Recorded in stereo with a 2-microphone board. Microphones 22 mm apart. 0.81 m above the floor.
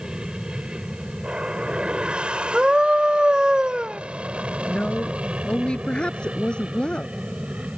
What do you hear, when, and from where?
0.0 s an aircraft: 40° right (ahead or behind); by 7.8 s 70° right (ahead or behind)
2.5 s a scream: 50° right (ahead or behind)
4.7 s a woman speaking: 50° left (ahead or behind)